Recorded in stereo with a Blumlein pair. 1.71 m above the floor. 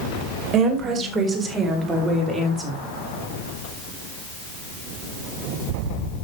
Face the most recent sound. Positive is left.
turn(degrees=0)